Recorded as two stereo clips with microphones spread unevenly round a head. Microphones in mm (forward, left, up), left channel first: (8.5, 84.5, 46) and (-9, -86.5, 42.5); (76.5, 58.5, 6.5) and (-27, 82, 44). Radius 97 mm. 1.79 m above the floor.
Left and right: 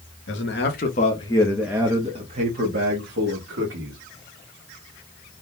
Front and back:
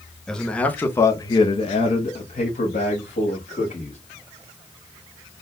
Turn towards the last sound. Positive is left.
turn(degrees=-70)